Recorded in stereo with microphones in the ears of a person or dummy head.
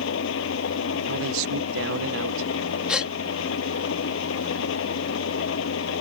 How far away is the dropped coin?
No dropped coin in this recording.